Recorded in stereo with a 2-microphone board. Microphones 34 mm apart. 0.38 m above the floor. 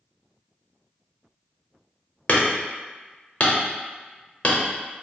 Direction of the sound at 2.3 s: 40° left (ahead or behind).